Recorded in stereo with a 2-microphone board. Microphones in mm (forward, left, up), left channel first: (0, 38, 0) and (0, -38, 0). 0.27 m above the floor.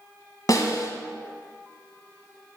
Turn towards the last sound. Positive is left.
turn(degrees=55)  # may be behind; listen again after turning